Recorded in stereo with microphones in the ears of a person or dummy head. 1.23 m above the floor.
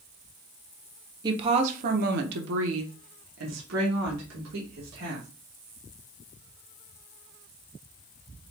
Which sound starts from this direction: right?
A woman speaking, at 1.2 s.